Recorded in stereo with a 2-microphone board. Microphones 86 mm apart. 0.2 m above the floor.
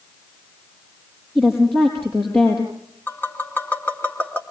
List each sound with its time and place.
1.4 s a woman speaking: 25° left (ahead or behind), 5 m
3.1 s tapping: 25° left (ahead or behind), 2.5 m